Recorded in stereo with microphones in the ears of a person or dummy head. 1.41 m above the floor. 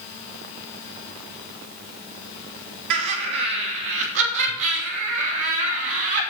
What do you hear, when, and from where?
2.9 s laughter: 55° right (ahead or behind), 3 m; by 6.2 s 60° right (ahead or behind), 5 m